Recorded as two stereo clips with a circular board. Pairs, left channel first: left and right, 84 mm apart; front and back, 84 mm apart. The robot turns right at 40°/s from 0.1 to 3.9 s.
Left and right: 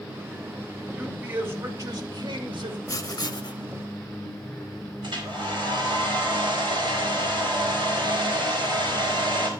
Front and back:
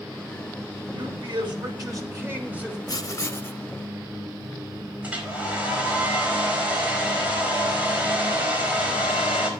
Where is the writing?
45° left, 0.8 m; by 3.6 s 70° left, 0.8 m.